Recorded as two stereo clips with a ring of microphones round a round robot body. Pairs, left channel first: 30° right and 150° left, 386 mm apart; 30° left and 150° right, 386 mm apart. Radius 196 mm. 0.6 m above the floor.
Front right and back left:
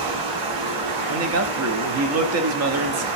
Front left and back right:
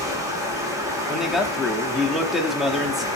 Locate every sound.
0.0 s running water: 130° left, 1.7 m
1.1 s a man speaking: 120° left, 1.0 m